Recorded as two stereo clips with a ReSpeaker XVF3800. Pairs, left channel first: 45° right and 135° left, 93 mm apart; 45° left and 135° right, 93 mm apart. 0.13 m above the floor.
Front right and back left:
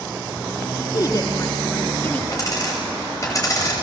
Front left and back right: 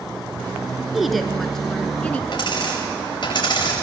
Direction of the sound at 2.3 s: 10° left.